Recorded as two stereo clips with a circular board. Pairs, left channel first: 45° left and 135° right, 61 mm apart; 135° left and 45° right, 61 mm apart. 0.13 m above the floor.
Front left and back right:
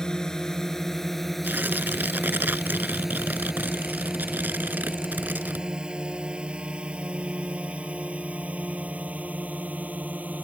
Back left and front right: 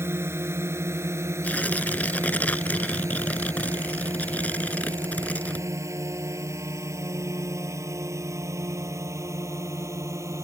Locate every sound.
0.0 s a drone: 30° right; by 10.4 s 70° right
1.4 s tearing paper: 175° right